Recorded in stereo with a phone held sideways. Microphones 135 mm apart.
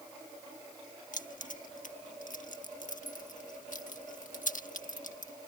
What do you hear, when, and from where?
1.1 s keys jangling: 70° left (ahead or behind)